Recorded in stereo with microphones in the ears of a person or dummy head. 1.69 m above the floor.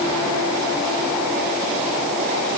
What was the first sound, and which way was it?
Only background noise.